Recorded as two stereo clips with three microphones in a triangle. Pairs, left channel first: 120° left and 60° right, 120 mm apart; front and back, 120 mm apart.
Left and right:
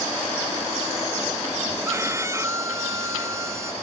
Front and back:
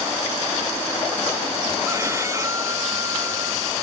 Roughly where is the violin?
Behind right.